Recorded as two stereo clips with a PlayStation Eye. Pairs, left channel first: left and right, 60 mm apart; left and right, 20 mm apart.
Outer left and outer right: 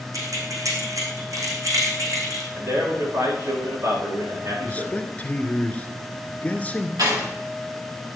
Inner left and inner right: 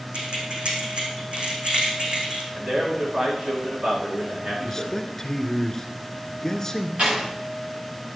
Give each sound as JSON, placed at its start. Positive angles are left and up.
{"t": 0.1, "sound": "keys jangling", "side_deg": -65, "distance_m": 4.5}
{"t": 2.5, "sound": "a man speaking", "side_deg": -60, "distance_m": 9.5}
{"t": 4.7, "sound": "a man speaking", "side_deg": 25, "distance_m": 1.4}
{"t": 7.0, "sound": "a door slam", "side_deg": -80, "distance_m": 8.0}